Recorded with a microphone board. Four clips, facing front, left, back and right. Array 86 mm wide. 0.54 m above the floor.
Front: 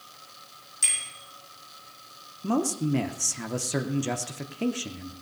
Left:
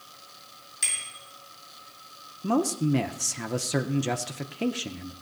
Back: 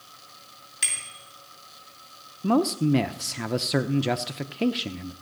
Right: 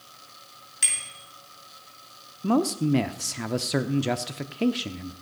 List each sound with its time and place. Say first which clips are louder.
0.8 s a bicycle bell: right 1 dB, back 2 dB; 145° right, 5 m
2.4 s a man speaking: right 2 dB, back 4 dB; 155° right, 0.6 m